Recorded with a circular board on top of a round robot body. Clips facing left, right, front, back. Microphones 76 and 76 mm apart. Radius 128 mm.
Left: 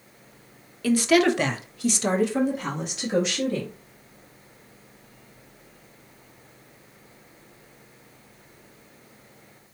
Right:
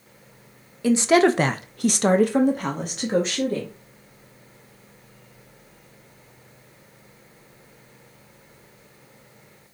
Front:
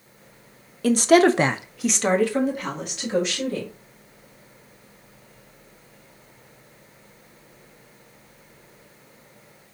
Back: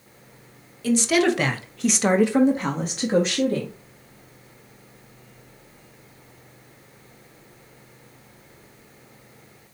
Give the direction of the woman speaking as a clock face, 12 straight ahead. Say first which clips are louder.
Right 2 dB, front 4 dB; 1 o'clock.